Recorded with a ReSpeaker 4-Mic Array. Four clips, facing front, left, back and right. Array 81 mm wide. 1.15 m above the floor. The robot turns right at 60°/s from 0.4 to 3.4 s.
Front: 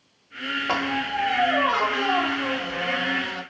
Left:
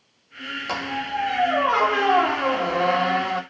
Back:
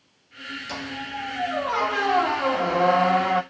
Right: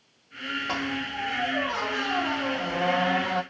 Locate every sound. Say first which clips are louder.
0.7 s a squeak: left 6 dB, front 8 dB; 15° left, 1.0 m; by 3.4 s 175° left, 1.0 m